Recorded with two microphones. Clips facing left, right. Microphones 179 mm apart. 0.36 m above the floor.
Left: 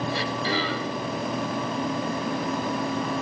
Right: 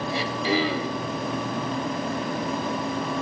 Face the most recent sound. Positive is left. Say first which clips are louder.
# right 2 dB
turn(degrees=-15)  # may be behind; listen again after turning